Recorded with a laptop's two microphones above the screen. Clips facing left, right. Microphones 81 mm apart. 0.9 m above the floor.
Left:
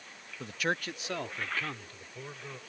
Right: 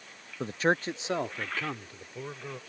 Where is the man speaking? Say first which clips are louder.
Right 6 dB; 35° right (ahead or behind); by 2.6 s 15° right (ahead or behind).